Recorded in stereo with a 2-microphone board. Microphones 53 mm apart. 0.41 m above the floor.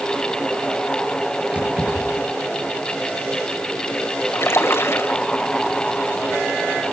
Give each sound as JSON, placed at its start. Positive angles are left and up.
{"t": 1.5, "sound": "keys jangling", "side_deg": -25, "distance_m": 5.5}
{"t": 4.3, "sound": "a splash", "side_deg": 55, "distance_m": 1.4}